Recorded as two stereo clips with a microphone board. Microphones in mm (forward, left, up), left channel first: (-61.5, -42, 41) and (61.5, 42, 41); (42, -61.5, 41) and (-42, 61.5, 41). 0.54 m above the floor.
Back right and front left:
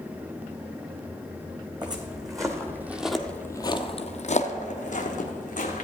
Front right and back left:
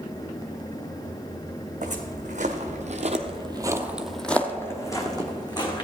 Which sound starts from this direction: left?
Footsteps, at 1.8 s.